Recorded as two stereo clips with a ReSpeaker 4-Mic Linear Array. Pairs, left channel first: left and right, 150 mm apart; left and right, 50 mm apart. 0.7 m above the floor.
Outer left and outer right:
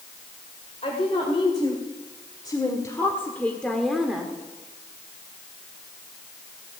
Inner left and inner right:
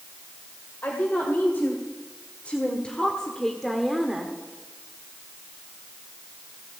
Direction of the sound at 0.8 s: 45° left (ahead or behind).